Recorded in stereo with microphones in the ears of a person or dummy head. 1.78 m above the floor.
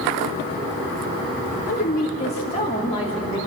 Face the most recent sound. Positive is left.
turn(degrees=20)  # may be behind; listen again after turning